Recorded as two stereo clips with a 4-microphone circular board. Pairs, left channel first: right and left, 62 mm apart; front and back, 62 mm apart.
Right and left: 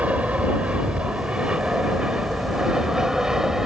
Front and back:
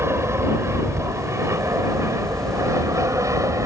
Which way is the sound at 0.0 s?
150° left.